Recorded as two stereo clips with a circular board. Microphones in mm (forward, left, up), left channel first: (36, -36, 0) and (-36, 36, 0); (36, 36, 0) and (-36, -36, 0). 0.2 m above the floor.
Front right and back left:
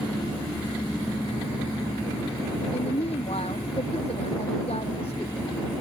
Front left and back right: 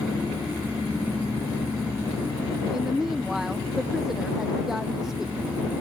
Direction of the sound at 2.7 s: 50° right.